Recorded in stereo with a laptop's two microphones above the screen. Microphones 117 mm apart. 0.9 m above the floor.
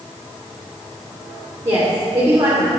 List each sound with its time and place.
1.6 s a woman speaking: 30° right (ahead or behind), 2.5 m